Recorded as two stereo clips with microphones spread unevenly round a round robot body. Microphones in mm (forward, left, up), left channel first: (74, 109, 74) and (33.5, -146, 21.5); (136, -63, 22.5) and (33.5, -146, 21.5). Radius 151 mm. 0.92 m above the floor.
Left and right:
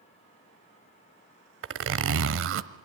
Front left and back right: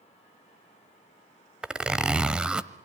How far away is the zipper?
About 1.0 m.